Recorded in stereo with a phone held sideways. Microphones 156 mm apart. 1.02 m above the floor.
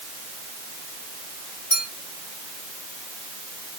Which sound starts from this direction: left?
A clink, at 1.7 s.